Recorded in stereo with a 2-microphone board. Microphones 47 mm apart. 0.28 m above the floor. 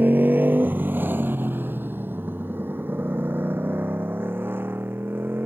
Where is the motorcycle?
40° right (ahead or behind); by 5.5 s 45° right (ahead or behind).